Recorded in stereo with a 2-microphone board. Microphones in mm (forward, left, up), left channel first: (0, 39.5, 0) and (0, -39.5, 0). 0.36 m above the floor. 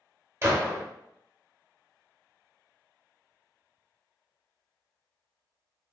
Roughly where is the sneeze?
No sneeze in this recording.